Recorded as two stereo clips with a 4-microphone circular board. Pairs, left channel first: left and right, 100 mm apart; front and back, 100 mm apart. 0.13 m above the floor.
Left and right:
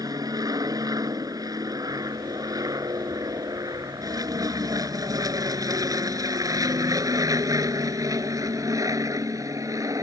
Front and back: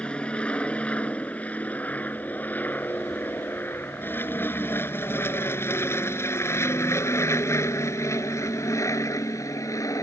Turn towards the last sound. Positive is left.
turn(degrees=-45)